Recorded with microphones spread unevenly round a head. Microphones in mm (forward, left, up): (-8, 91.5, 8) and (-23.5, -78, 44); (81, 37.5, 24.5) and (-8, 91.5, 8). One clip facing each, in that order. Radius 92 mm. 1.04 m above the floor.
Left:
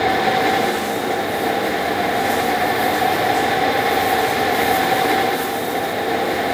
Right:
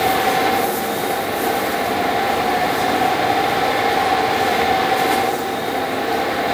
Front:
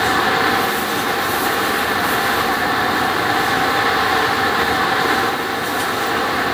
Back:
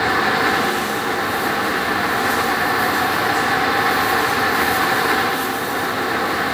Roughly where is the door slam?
No door slam in this recording.